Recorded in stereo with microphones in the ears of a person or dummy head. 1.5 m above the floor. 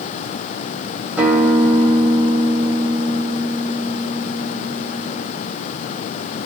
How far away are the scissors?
I don't hear scissors.